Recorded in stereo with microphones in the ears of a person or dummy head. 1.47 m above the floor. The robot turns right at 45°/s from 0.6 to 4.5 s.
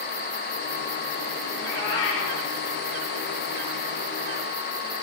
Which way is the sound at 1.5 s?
75° left.